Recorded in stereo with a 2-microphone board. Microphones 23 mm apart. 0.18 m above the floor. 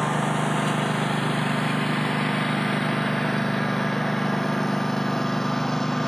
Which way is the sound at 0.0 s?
Centre (ahead or behind).